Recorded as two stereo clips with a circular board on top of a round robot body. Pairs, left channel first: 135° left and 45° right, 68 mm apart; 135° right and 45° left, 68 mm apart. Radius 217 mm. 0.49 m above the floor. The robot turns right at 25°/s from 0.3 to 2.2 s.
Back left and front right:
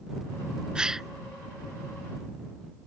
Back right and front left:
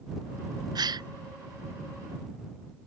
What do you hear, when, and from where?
0.8 s a gasp: 35° left; by 1.1 s 40° left